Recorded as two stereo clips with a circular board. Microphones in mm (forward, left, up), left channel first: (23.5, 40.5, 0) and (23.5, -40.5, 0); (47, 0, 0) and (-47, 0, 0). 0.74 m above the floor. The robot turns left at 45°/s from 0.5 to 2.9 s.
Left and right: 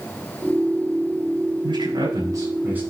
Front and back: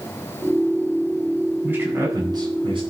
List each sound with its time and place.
1.6 s a man speaking: 105° right, 8.5 m; by 2.8 s 160° right, 8.5 m